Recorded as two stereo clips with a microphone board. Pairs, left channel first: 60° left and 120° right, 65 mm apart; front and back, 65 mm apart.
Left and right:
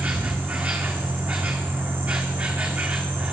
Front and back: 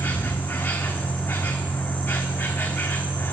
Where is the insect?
65° right, 1.1 m.